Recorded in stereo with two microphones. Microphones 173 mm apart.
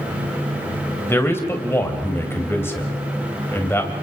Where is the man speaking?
15° left (ahead or behind), 2.5 m.